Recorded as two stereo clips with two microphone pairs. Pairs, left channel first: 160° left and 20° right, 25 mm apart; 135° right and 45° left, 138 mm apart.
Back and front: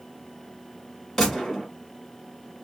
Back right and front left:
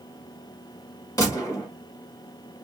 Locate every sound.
1.2 s a gunshot: 150° right, 1.5 m